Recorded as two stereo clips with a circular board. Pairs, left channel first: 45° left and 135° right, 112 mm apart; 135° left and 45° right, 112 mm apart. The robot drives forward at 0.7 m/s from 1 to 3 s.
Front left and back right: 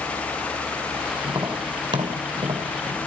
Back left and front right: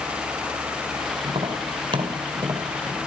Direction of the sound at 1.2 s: 80° right.